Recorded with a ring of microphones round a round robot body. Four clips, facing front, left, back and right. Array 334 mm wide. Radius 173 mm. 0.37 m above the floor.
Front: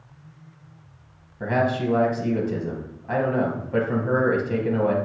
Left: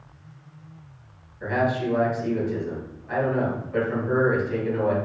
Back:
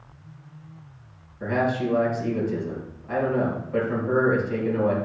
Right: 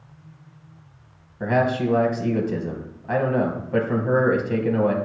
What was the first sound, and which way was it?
A man speaking, 60° right.